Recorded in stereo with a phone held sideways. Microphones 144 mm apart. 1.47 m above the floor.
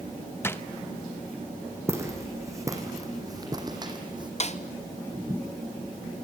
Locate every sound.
0.4 s a drawer: 15° left (ahead or behind), 0.8 m
1.9 s footsteps: 15° right (ahead or behind), 4 m; by 4.3 s 30° right (ahead or behind), 3 m
4.4 s a snare drum: 45° left (ahead or behind), 0.9 m